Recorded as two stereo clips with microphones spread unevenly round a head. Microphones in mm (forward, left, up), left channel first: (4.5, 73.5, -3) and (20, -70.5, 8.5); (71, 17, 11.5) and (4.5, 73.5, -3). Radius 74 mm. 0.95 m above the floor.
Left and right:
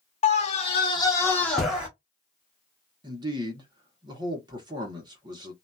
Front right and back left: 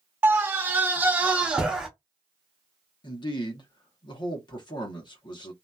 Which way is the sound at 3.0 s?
30° right.